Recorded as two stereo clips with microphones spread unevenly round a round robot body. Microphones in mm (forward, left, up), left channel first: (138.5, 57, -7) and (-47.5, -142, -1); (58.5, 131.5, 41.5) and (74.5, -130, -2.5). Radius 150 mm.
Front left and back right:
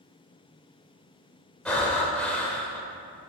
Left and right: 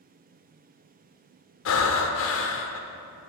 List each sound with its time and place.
1.6 s breathing: 130° left, 0.5 m